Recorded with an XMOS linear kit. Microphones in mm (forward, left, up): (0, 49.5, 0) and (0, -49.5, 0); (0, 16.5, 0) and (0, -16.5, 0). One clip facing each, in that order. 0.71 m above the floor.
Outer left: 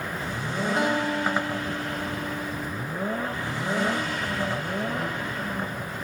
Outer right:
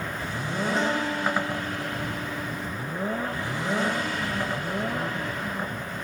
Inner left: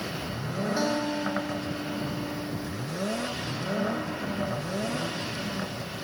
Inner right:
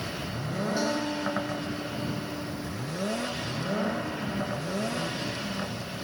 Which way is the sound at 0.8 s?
10° left (ahead or behind).